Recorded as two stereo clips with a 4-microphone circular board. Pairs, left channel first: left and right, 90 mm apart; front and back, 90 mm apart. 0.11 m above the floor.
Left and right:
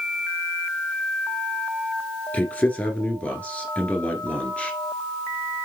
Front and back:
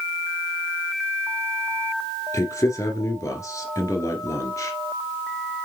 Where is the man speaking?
25° left, 1.8 m.